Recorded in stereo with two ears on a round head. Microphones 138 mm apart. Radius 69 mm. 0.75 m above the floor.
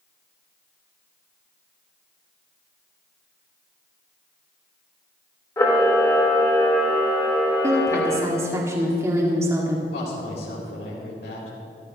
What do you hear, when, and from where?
5.6 s a camera shutter: 20° left (ahead or behind), 3 m
7.6 s a woman speaking: 20° right (ahead or behind), 1.9 m
9.9 s a woman speaking: 75° left (ahead or behind), 4 m